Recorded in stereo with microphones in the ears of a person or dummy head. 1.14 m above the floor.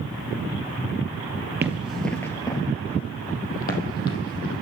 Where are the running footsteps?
15° right (ahead or behind), 1.4 m; by 4.6 s 55° left (ahead or behind), 3.5 m.